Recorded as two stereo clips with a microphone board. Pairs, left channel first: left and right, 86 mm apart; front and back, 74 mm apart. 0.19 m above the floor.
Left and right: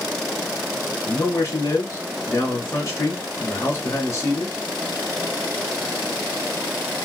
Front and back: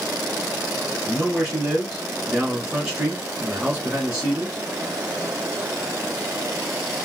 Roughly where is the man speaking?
Left.